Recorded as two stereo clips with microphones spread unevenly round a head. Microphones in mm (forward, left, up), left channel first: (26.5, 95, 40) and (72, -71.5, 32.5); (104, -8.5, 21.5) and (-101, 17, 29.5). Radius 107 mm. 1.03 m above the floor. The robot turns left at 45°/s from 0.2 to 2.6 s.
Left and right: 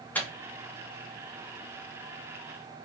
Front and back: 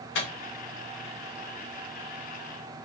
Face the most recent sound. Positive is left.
turn(degrees=-85)